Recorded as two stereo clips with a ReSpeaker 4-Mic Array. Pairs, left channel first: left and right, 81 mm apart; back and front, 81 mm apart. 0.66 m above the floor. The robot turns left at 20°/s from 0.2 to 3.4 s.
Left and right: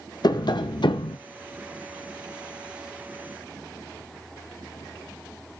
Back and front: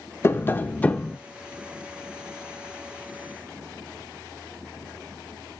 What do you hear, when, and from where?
0.2 s tapping: 120° left, 0.6 m; by 1.2 s 105° left, 0.6 m